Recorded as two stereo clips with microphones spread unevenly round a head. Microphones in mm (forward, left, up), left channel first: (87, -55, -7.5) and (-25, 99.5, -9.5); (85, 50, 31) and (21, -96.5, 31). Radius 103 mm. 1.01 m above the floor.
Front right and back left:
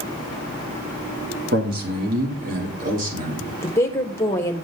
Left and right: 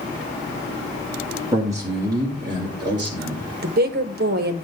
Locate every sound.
1.5 s a man speaking: 170° left, 2.5 m; by 3.5 s straight behind, 3.5 m
3.6 s a woman speaking: 130° right, 1.2 m